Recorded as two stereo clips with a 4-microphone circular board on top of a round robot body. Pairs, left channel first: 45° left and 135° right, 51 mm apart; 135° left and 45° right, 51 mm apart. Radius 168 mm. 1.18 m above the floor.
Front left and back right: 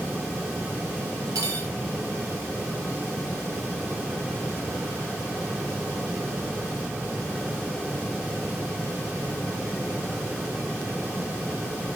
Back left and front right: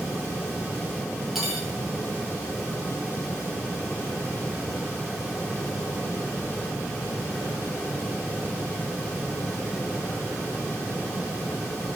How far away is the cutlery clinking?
About 0.8 m.